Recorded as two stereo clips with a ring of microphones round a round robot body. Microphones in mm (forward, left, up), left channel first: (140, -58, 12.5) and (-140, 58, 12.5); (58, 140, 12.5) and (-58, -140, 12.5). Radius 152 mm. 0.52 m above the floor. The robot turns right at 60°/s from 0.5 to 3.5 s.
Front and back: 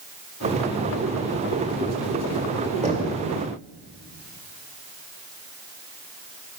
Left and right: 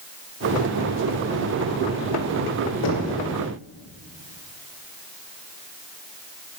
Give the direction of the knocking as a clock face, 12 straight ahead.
9 o'clock.